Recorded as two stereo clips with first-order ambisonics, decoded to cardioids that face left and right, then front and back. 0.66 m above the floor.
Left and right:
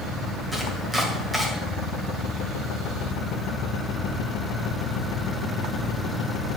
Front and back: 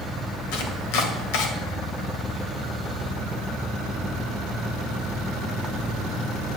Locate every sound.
0.5 s chopping: 5° right, 1.6 m